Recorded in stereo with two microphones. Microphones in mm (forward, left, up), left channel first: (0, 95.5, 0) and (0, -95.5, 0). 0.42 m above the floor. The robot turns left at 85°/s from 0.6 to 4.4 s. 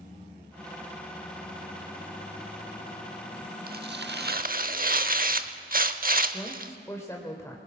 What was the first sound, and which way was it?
Tearing paper, 60° right.